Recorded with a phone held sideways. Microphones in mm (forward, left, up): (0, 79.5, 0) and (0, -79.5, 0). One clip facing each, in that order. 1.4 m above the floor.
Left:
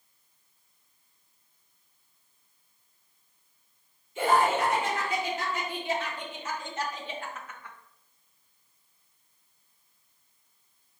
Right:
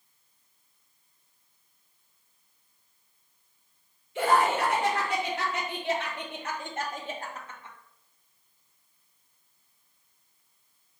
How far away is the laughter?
About 2.5 m.